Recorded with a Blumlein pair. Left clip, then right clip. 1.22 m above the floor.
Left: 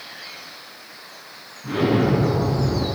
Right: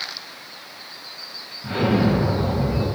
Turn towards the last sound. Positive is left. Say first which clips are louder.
# left 1 dB
turn(degrees=-70)